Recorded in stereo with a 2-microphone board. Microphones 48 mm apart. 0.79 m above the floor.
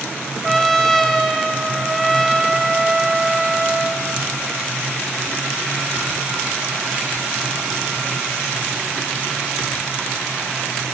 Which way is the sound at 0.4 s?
Centre (ahead or behind).